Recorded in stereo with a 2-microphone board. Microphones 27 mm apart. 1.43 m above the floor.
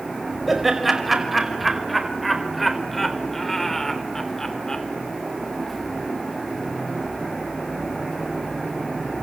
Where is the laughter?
10° right (ahead or behind), 5.5 m; by 4.8 s 20° left (ahead or behind), 3.5 m.